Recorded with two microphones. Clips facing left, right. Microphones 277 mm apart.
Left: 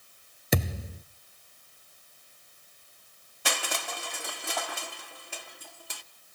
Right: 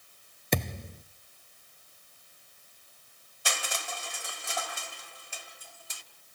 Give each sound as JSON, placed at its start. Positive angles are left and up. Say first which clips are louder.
{"t": 0.5, "sound": "a thud", "louder": "left 2 dB", "side_deg": 5, "distance_m": 0.8}
{"t": 3.5, "sound": "crushing", "louder": "left 4 dB", "side_deg": 65, "distance_m": 1.7}